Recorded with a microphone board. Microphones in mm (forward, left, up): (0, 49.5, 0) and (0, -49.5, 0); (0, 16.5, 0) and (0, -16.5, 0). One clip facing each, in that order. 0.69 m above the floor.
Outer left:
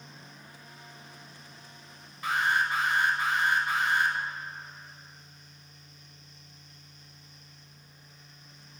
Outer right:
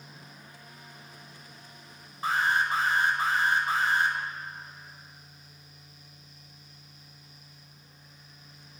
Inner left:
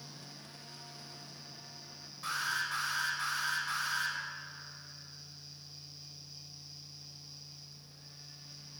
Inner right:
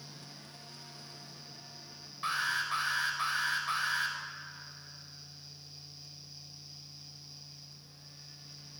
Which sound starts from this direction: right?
An alarm, at 2.2 s.